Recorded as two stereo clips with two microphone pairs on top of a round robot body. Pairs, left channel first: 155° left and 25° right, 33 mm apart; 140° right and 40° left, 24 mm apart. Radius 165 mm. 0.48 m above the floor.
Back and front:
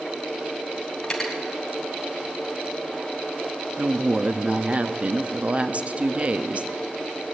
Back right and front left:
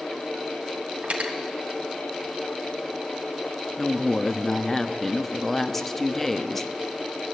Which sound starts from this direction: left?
Cutlery clinking, at 1.0 s.